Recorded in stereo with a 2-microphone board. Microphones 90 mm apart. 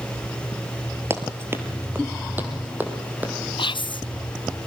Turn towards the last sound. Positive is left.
turn(degrees=65)  # may be behind; listen again after turning